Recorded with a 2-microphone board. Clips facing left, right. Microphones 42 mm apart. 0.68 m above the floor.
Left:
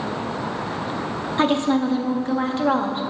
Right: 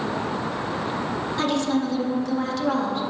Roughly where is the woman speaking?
Left.